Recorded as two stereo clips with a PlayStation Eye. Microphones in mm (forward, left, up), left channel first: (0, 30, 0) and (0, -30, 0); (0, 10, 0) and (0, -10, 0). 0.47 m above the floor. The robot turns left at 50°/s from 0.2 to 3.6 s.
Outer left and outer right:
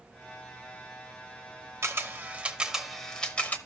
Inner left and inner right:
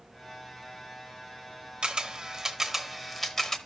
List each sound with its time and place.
1.8 s a camera shutter: 55° right (ahead or behind), 0.9 m; by 3.6 s 30° left (ahead or behind), 0.9 m